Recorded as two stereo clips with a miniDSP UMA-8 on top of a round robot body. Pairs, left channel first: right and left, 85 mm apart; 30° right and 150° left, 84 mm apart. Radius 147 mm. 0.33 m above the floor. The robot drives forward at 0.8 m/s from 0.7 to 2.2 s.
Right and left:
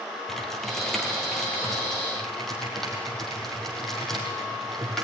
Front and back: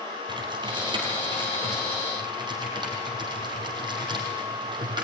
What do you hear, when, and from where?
0.3 s typing on a keyboard: 175° right, 2.5 m; by 5.0 s straight behind, 4 m